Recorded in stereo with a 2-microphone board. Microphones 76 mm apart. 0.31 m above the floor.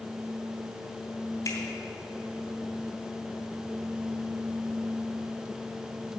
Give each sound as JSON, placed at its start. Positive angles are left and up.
{"t": 1.4, "sound": "a finger snap", "side_deg": 45, "distance_m": 2.5}